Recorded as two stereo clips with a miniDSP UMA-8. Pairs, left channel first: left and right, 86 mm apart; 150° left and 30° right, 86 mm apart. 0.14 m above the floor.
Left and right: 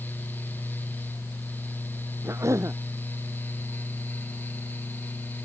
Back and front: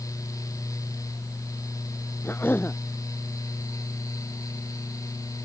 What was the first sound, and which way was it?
A cough, 145° right.